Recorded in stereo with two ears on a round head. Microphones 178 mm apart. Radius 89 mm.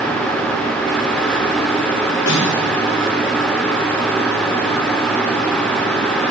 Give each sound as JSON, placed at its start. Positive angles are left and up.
{"t": 2.3, "sound": "a snare drum", "side_deg": 80, "distance_m": 6.5}